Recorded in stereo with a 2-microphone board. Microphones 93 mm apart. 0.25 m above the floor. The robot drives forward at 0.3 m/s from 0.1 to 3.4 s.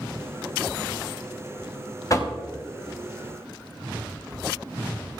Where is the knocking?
40° left (ahead or behind), 1.0 m.